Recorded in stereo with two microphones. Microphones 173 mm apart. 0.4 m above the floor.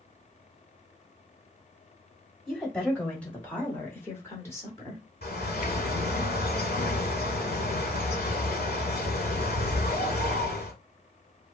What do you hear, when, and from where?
2.5 s a woman speaking: 5° left (ahead or behind), 2 m; by 5.0 s 20° left (ahead or behind), 1.1 m
5.2 s a bird: 65° left (ahead or behind), 1.3 m